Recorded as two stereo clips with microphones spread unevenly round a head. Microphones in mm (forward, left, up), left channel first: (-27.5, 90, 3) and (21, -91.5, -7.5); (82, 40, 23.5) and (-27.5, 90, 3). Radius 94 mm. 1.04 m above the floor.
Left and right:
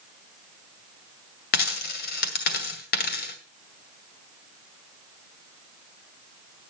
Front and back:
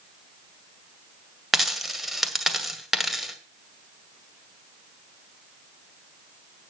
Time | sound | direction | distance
1.5 | a dropped coin | 65° left | 2 m